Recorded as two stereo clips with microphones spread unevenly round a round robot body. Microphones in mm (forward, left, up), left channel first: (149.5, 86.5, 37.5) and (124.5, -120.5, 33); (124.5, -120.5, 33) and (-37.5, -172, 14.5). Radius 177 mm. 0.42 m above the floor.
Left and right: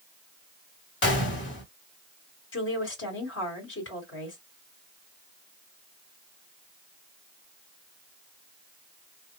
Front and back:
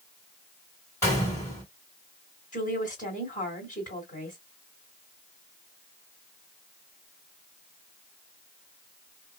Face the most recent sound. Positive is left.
turn(degrees=95)